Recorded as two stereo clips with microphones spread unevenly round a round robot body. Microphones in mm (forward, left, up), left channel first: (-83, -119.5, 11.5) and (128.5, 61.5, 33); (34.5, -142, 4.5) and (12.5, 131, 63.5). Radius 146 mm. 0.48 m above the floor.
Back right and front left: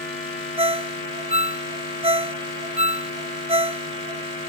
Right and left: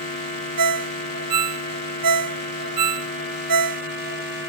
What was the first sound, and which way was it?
A ringtone, 110° left.